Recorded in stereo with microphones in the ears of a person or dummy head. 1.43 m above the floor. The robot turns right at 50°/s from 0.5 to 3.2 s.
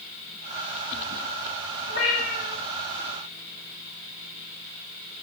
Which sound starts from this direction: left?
A cat meowing, at 1.9 s.